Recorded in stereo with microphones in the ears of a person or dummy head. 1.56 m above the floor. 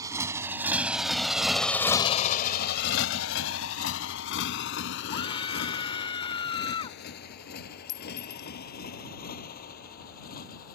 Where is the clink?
70° left (ahead or behind).